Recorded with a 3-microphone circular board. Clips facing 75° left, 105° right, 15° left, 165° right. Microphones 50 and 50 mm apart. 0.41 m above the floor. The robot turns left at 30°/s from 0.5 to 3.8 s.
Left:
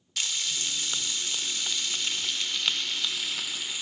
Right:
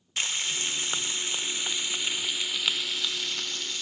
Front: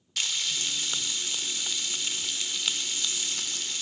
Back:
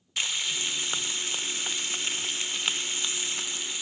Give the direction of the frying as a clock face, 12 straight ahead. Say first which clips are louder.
Right 2 dB, back 1 dB; 4 o'clock.